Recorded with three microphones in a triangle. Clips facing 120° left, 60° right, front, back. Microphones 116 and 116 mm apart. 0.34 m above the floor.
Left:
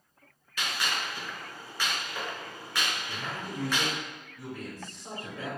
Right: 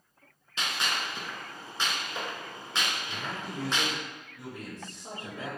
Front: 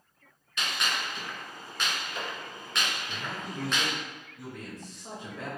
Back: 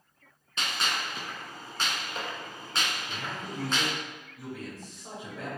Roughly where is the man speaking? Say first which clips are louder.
Even, even; right.